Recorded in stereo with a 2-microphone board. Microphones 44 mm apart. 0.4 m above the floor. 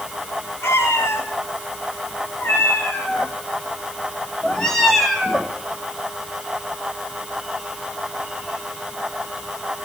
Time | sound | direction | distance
0.6 | a cat meowing | 70° left (ahead or behind) | 5.5 m